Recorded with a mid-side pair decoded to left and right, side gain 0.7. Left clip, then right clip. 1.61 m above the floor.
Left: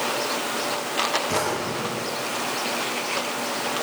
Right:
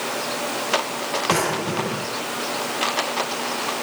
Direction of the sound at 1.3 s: 25° right.